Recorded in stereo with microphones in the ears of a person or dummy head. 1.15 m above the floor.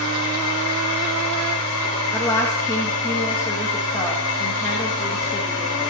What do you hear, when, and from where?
0.0 s a machine running: 65° left (ahead or behind), 2.5 m
2.1 s a woman speaking: 20° left (ahead or behind), 1.4 m